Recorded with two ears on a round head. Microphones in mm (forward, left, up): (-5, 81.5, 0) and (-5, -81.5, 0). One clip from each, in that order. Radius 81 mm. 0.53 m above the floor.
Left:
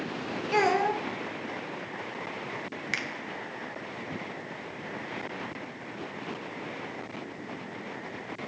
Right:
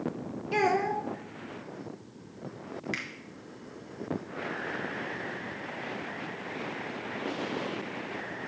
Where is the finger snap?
30° left (ahead or behind), 0.6 m.